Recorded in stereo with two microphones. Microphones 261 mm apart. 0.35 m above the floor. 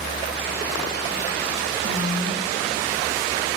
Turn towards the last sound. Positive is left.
turn(degrees=-40)  # may be behind; listen again after turning